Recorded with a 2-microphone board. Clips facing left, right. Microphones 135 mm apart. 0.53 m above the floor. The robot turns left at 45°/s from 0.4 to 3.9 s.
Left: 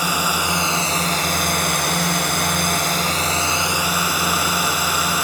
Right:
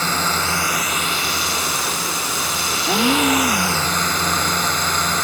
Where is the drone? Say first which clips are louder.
Even; 165° left; by 5.2 s 10° left.